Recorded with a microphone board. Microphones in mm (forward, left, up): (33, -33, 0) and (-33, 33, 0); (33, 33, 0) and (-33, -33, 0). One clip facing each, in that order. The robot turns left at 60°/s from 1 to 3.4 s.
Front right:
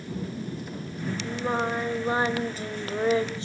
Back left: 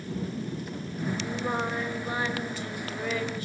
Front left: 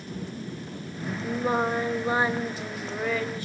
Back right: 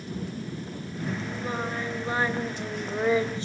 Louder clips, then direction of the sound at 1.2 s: Front right 5 dB, front left 6 dB; 40° left.